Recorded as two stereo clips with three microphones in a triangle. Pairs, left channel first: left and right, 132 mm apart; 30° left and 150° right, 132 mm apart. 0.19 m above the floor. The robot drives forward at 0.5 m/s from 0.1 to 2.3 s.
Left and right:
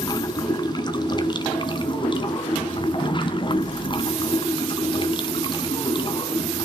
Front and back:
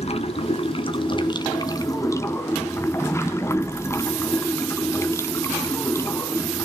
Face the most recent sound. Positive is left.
turn(degrees=85)